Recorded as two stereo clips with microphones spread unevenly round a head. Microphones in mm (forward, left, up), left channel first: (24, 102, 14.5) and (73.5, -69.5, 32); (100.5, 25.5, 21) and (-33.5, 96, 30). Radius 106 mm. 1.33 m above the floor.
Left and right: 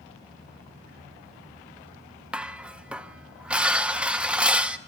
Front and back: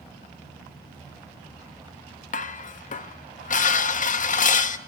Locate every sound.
2.3 s dishes clattering: 5° left, 1.2 m